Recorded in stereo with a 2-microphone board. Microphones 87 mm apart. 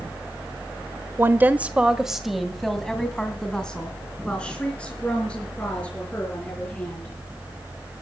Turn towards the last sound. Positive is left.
turn(degrees=15)  # may be behind; listen again after turning